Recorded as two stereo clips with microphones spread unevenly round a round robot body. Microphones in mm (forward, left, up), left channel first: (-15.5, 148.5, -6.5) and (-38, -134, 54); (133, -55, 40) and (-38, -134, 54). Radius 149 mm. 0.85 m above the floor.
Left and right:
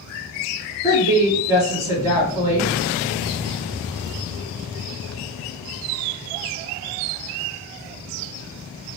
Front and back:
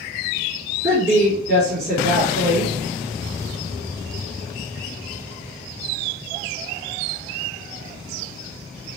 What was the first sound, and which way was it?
A woman speaking, straight behind.